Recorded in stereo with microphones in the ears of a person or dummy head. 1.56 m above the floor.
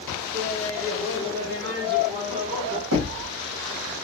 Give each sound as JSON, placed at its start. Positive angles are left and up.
{"t": 0.3, "sound": "laughter", "side_deg": -75, "distance_m": 1.4}
{"t": 2.9, "sound": "knocking", "side_deg": -70, "distance_m": 1.2}